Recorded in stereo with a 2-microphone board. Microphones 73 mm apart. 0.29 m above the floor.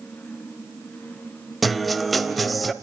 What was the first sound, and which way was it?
A guitar, centre (ahead or behind).